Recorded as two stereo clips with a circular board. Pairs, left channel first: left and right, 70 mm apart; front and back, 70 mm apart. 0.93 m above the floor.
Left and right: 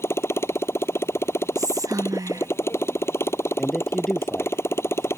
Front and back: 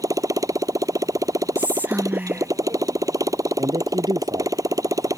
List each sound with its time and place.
0.0 s a motorcycle: 145° left
1.6 s whispering: 115° right
3.6 s a man speaking: 175° left